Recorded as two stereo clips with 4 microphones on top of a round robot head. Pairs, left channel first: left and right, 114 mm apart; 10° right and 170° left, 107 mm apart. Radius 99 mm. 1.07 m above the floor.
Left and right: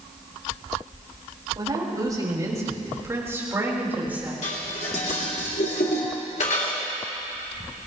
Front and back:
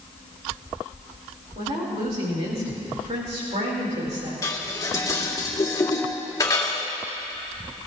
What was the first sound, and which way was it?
A woman speaking, 145° right.